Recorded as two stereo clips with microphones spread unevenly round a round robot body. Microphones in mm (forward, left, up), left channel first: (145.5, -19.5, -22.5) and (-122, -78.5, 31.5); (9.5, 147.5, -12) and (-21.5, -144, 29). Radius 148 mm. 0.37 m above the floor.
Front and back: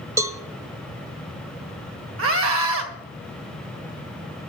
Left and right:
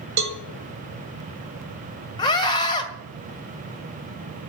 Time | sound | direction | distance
0.2 | a cowbell | 80° right | 1.2 m
2.2 | a scream | 150° left | 2.0 m